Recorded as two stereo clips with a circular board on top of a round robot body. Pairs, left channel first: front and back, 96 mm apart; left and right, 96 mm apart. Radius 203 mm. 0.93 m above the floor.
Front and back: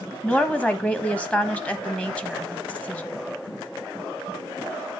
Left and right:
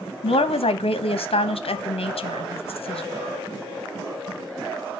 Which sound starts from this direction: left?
A woman speaking, at 0.2 s.